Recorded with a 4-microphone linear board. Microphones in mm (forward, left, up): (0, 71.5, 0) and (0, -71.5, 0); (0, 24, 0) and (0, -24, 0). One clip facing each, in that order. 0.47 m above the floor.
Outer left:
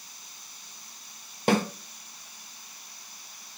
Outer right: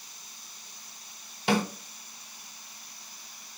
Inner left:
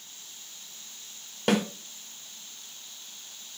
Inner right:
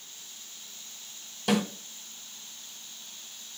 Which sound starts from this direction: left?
A snare drum, at 1.5 s.